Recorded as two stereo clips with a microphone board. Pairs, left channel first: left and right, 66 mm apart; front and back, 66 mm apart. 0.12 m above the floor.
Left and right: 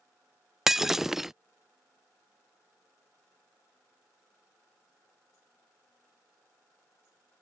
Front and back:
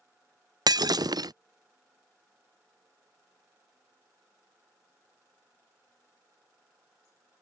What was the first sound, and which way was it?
Breaking glass, 175° right.